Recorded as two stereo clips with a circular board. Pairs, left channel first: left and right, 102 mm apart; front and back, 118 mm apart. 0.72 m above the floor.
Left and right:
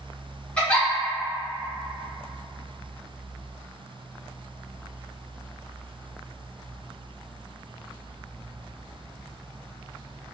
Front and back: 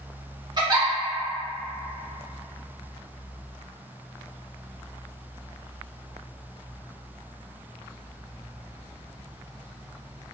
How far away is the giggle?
About 0.8 m.